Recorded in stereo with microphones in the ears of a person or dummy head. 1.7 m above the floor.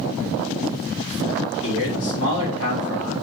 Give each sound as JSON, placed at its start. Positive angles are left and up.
{"t": 1.6, "sound": "a man speaking", "side_deg": 75, "distance_m": 3.5}